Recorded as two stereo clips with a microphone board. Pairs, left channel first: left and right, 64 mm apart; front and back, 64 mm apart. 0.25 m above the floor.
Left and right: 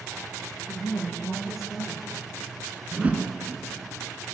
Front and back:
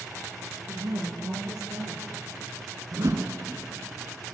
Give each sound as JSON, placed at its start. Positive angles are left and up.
{"t": 0.7, "sound": "a woman speaking", "azimuth_deg": 175, "distance_m": 6.0}
{"t": 2.9, "sound": "a whoosh", "azimuth_deg": -155, "distance_m": 2.5}